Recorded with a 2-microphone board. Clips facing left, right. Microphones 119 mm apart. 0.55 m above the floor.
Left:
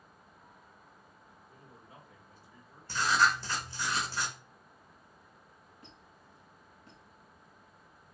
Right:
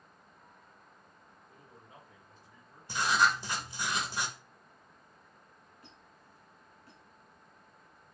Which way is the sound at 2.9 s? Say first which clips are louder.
Even; 15° right (ahead or behind).